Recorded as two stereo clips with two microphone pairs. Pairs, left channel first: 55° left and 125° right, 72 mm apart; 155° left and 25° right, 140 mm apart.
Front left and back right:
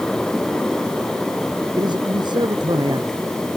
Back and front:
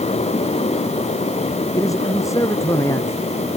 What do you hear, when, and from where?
1.8 s a man speaking: 140° right; by 3.3 s 135° right